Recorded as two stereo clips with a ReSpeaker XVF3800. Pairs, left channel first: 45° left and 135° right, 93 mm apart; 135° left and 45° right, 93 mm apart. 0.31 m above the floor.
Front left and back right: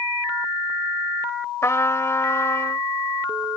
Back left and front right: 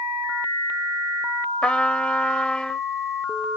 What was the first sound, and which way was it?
A trumpet, 65° left.